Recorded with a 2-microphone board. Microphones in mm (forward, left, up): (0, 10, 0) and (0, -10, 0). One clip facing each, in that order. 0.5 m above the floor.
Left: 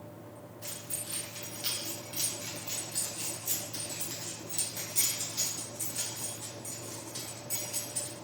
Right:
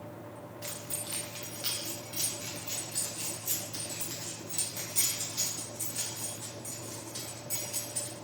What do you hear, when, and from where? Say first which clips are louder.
0.6 s keys jangling: right 1 dB; 65° right (ahead or behind), 1.8 m; by 8.1 s 10° right (ahead or behind), 5 m